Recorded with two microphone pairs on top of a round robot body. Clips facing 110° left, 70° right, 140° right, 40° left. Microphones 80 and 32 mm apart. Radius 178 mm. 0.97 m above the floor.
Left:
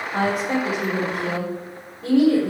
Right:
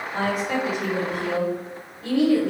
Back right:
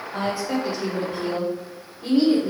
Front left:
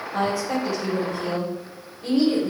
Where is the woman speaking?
165° left, 4.5 m.